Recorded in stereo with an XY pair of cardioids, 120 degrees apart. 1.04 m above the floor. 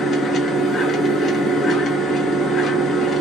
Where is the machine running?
50° left, 1.1 m.